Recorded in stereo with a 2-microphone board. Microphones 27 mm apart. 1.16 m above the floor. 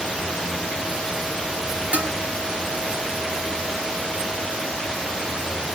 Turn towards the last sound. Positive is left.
turn(degrees=-60)  # may be behind; listen again after turning